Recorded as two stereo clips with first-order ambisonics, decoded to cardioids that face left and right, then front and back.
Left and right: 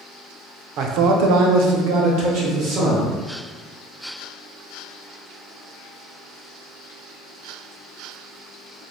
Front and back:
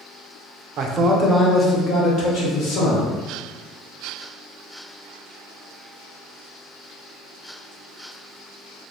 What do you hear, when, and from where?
0.8 s a man speaking: 130° right, 0.5 m; by 3.1 s 45° right, 1.4 m